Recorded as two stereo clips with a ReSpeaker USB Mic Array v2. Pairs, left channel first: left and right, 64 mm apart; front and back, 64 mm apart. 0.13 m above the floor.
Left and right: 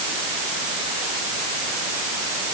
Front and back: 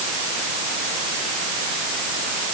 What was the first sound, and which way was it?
Only background noise.